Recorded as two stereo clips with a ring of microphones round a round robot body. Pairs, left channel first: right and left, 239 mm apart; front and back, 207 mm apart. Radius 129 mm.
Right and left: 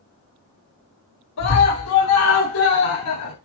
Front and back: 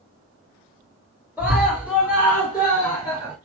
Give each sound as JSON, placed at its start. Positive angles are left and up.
{"t": 1.4, "sound": "a scream", "azimuth_deg": -95, "distance_m": 3.0}